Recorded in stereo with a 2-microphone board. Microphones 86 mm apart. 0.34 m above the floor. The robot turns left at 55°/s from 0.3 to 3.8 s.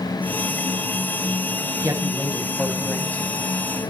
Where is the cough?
No cough in this recording.